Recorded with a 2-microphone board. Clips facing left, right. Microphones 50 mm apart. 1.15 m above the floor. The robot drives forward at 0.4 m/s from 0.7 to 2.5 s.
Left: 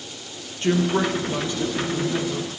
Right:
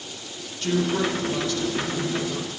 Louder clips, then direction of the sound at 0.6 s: Left 3 dB; 30° left (ahead or behind).